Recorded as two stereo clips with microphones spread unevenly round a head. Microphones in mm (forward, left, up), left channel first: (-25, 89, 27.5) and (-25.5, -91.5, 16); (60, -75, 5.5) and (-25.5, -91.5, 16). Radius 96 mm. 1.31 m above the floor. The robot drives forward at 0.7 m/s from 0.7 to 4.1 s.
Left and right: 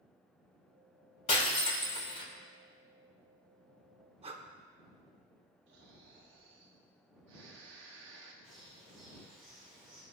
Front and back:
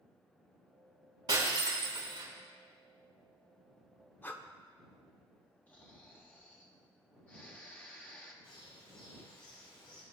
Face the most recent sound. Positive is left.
turn(degrees=-5)